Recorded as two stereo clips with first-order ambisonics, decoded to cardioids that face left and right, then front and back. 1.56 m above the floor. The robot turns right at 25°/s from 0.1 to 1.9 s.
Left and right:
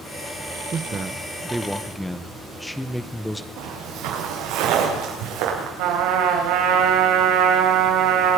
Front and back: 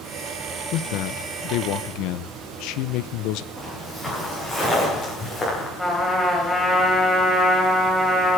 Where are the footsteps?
90° right, 7.5 m; by 5.7 s 80° right, 6.5 m.